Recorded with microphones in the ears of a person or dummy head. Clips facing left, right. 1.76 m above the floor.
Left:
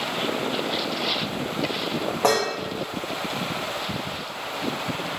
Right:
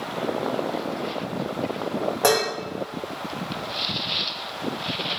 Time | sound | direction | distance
2.2 | dishes clattering | 15° right (ahead or behind) | 1.4 m